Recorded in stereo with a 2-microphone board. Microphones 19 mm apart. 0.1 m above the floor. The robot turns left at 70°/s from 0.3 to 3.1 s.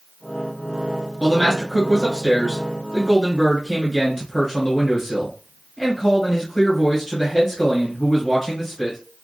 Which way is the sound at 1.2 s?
Centre (ahead or behind).